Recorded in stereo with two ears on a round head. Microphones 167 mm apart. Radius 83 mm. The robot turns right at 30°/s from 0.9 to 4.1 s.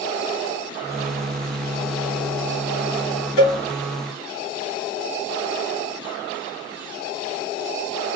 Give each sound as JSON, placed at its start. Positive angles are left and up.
{"t": 3.4, "sound": "a cowbell", "side_deg": 65, "distance_m": 2.5}